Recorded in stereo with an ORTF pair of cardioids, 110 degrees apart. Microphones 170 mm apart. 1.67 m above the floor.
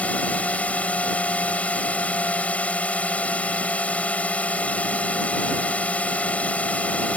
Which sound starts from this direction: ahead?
A drone, at 0.0 s.